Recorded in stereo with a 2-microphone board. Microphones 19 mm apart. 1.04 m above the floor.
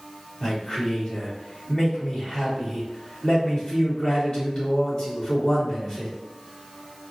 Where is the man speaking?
45° left (ahead or behind), 1.9 m.